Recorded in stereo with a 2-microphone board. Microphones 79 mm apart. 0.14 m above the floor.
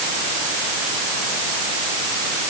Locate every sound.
Only background noise.